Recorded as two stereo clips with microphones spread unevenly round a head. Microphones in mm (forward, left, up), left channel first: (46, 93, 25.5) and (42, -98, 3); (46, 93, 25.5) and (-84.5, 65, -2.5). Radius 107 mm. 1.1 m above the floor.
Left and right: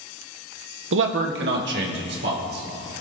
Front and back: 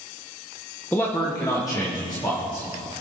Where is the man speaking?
70° right, 0.9 m; by 3.0 s 60° right, 3.5 m.